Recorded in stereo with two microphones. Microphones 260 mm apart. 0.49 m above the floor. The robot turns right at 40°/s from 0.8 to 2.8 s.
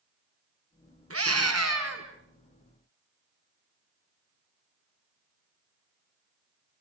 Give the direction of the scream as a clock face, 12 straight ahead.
4 o'clock.